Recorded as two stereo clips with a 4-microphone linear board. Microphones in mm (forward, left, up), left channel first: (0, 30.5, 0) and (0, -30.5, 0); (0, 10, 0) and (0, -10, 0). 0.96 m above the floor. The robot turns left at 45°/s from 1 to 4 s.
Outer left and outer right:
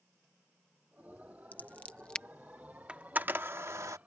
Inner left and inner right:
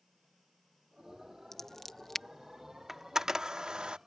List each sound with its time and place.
1.5 s scissors: 30° left (ahead or behind); by 2.2 s 10° left (ahead or behind)
2.9 s a camera shutter: 20° right (ahead or behind); by 4.0 s 65° right (ahead or behind)